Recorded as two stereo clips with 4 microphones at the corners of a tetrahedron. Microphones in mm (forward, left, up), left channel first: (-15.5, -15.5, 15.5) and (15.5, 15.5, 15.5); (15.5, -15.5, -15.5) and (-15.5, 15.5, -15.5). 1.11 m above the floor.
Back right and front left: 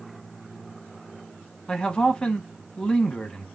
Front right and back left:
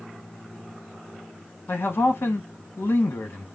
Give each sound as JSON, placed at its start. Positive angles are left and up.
{"t": 1.7, "sound": "a man speaking", "azimuth_deg": -60, "distance_m": 0.9}